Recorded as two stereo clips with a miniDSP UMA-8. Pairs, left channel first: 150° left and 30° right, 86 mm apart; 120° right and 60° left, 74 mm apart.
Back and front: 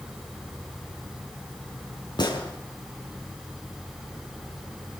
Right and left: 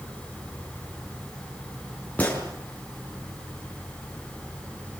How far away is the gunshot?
About 6.5 m.